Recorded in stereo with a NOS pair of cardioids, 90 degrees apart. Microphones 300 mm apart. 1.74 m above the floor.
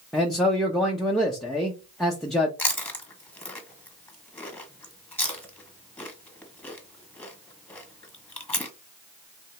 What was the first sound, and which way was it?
A man speaking, straight ahead.